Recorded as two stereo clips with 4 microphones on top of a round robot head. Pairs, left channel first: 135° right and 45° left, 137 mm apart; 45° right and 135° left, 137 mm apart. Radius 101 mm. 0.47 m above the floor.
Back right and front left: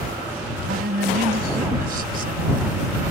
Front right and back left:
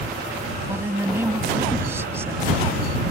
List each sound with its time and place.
0.7 s a woman speaking: 60° left